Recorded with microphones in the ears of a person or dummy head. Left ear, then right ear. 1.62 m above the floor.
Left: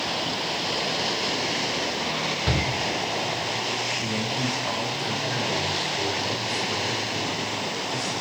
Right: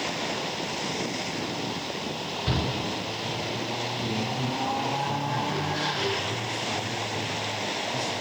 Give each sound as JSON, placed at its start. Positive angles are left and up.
{"t": 2.5, "sound": "a shout", "side_deg": 30, "distance_m": 5.0}
{"t": 4.0, "sound": "a man speaking", "side_deg": 25, "distance_m": 4.0}